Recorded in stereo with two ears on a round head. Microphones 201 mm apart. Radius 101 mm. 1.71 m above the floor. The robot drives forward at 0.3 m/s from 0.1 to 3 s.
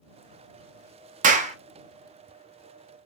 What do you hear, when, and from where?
1.2 s a clap: 35° right (ahead or behind), 0.5 m; by 1.6 s 30° right (ahead or behind), 0.6 m